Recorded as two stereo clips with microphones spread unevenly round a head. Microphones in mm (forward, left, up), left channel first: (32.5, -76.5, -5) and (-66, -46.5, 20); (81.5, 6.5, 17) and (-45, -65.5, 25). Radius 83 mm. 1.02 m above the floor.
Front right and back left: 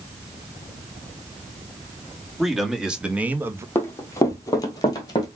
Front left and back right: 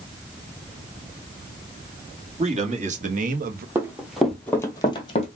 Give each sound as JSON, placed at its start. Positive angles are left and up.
{"t": 2.4, "sound": "a man speaking", "azimuth_deg": -105, "distance_m": 1.8}
{"t": 3.8, "sound": "running footsteps", "azimuth_deg": -90, "distance_m": 1.2}